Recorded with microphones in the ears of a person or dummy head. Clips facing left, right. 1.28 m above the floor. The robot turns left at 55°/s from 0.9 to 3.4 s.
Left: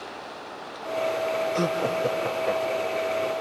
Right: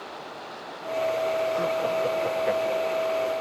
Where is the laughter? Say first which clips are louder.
Even; 45° left; by 3.1 s 35° right.